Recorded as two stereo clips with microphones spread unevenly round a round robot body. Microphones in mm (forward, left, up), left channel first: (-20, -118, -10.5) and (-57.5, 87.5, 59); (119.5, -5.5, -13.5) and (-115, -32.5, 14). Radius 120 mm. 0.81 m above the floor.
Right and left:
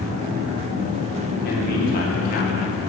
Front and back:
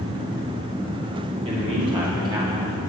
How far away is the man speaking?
About 2 m.